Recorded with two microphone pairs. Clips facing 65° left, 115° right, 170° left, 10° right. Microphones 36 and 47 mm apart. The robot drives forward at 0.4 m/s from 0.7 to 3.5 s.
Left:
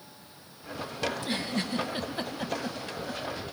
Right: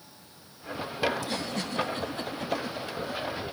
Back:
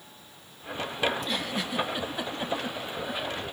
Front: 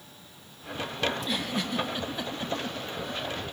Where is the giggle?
70° left, 1.4 m; by 3.2 s 135° left, 1.5 m.